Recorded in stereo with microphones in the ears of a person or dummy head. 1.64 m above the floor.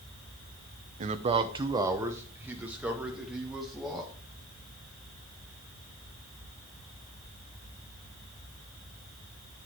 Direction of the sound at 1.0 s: 40° right (ahead or behind).